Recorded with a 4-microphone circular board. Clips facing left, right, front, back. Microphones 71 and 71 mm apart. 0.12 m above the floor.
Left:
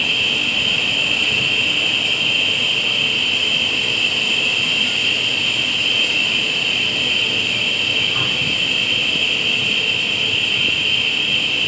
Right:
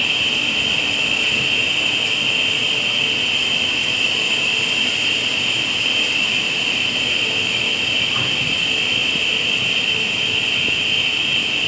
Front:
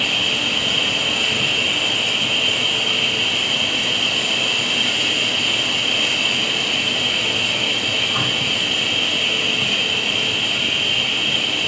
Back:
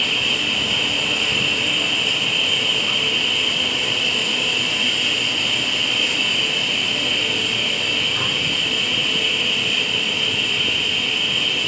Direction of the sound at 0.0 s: 20° right.